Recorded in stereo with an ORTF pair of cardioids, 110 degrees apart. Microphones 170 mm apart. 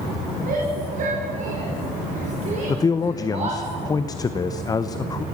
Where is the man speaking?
20° left, 0.7 m.